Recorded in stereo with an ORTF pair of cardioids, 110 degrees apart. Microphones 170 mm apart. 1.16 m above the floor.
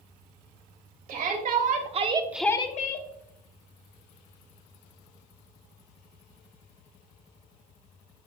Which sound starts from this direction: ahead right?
A shout, at 1.1 s.